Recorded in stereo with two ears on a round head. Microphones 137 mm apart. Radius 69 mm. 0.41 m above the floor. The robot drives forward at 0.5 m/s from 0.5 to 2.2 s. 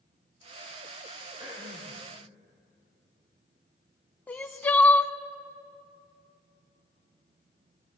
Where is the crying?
10° left (ahead or behind), 0.5 m.